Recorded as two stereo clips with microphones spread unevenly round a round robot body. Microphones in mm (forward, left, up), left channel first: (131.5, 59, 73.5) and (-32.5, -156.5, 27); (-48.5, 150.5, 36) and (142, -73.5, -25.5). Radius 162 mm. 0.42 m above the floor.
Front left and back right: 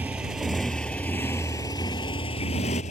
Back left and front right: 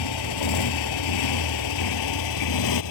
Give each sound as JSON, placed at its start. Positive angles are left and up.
{"t": 0.0, "sound": "a motorcycle", "azimuth_deg": 145}